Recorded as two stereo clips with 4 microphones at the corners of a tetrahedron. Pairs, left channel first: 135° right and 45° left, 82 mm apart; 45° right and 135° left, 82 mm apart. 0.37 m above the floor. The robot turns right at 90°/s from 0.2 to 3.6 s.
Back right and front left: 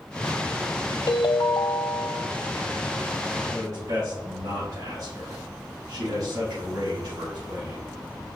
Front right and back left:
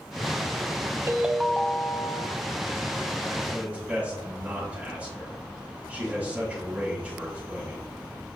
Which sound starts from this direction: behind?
A ringtone, at 1.1 s.